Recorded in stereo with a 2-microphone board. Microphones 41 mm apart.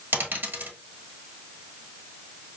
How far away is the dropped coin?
About 1.3 m.